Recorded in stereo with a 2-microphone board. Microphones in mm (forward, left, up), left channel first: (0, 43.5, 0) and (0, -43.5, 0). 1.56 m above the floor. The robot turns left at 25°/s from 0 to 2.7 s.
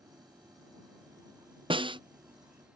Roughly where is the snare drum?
Right.